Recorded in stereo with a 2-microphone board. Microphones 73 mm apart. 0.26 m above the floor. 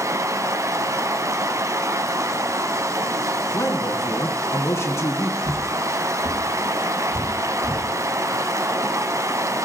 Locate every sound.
0.0 s running water: 45° right (ahead or behind), 1.0 m
3.5 s a man speaking: 40° left (ahead or behind), 2.0 m
5.4 s footsteps: 85° left, 5.5 m